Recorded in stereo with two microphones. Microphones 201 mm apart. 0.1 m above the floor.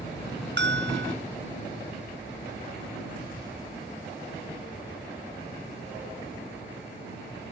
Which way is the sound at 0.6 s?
65° right (ahead or behind).